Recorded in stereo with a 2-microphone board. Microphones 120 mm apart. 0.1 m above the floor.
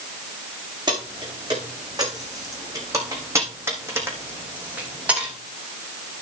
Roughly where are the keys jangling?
Right.